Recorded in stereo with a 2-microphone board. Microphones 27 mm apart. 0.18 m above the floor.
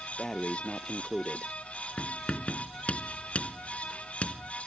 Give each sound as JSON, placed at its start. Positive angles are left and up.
{"t": 0.2, "sound": "breathing", "side_deg": 25}
{"t": 2.0, "sound": "writing", "side_deg": 55}